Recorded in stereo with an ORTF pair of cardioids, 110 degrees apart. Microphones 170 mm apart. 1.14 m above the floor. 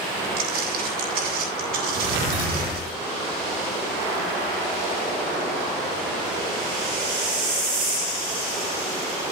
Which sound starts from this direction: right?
Footsteps, at 0.4 s.